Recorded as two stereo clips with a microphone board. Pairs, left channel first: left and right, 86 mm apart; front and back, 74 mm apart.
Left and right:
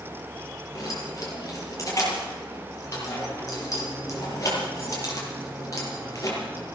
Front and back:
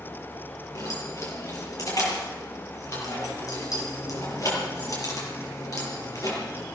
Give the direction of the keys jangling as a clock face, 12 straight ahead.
11 o'clock.